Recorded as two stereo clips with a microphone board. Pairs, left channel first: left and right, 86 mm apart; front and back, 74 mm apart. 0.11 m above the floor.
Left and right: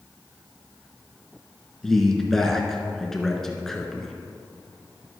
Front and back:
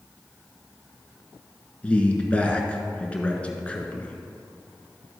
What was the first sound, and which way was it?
A man speaking, 10° left.